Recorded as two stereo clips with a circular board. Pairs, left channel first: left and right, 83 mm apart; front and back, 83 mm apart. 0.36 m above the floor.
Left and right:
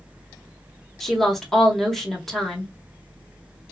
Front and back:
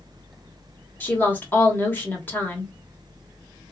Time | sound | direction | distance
1.0 | a woman speaking | 5° left | 0.9 m